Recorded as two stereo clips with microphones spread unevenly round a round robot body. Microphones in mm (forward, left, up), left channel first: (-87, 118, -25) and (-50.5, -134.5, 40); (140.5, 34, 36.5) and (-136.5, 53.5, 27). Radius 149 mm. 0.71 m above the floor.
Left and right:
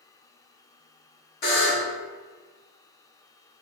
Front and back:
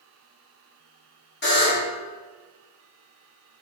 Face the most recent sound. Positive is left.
turn(degrees=45)